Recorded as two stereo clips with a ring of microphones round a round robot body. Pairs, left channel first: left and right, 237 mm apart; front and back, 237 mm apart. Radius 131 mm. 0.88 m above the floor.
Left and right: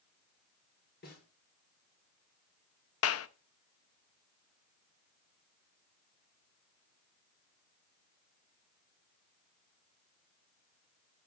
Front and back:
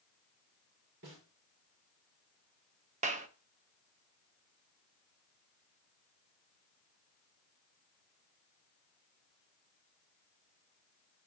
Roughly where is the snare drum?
Behind left.